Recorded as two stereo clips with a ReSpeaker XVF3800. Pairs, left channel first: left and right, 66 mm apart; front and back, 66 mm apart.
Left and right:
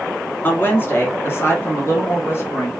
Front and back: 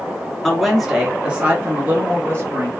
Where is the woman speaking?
80° left, 1.2 m; by 2.7 s 135° left, 1.8 m.